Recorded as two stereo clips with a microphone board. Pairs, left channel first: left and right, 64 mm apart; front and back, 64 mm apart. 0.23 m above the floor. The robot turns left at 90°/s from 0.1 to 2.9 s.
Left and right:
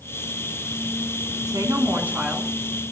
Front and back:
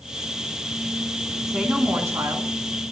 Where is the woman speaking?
95° right, 2.5 m; by 2.5 s 175° left, 2.5 m.